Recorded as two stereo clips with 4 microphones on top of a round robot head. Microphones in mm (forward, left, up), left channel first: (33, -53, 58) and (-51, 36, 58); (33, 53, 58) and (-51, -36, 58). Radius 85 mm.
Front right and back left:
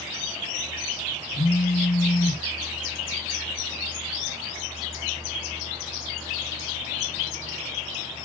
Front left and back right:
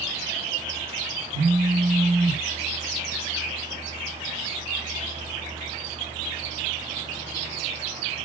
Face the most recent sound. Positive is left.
turn(degrees=-110)